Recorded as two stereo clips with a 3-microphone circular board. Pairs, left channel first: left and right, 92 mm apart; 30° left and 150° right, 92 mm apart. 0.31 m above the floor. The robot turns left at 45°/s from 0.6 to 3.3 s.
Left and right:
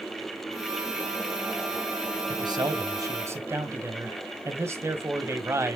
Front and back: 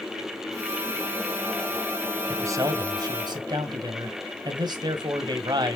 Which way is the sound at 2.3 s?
95° right.